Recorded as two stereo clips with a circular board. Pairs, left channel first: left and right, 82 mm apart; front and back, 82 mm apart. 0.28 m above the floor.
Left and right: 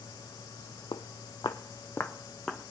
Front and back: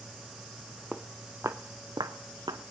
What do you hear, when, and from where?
0.9 s footsteps: 90° left, 0.8 m; by 2.6 s 175° left, 1.1 m